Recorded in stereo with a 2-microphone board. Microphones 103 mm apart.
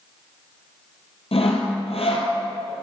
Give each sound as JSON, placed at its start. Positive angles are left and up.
{"t": 1.3, "sound": "sawing", "side_deg": 70, "distance_m": 1.8}